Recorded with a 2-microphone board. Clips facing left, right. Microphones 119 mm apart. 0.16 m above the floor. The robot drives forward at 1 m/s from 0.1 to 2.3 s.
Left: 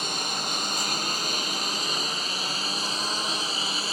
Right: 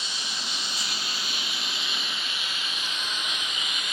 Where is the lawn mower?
50° left (ahead or behind); by 3.9 s 35° left (ahead or behind).